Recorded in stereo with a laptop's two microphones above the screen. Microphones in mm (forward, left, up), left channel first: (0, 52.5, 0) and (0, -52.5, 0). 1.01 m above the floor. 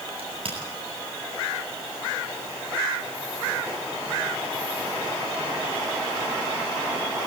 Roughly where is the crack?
Right.